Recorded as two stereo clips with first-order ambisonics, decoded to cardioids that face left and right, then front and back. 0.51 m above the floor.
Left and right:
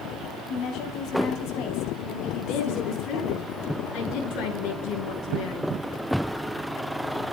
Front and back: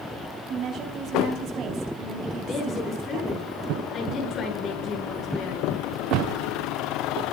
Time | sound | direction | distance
0.5 | a woman speaking | 130° left | 4.5 m
2.4 | a woman speaking | 60° left | 7 m